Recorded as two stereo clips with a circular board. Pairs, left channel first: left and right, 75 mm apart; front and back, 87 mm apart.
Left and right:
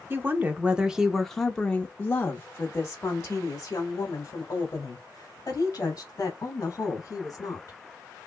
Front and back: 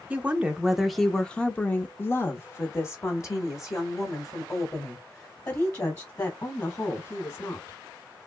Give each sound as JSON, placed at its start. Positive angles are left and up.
{"t": 0.1, "sound": "a woman speaking", "azimuth_deg": -125, "distance_m": 0.8}